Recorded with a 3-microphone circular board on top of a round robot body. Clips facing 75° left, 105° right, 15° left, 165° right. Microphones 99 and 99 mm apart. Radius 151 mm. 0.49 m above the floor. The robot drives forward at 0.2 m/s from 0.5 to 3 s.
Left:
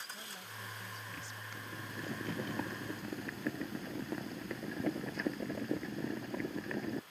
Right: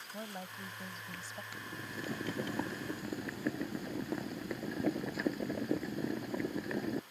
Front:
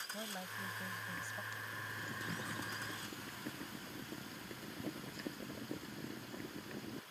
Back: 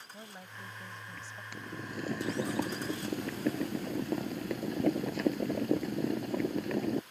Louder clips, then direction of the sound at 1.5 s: Even, back 6 dB; 170° left.